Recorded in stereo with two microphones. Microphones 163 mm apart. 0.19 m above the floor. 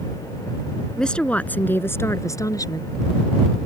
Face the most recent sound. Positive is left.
turn(degrees=25)  # may be behind; listen again after turning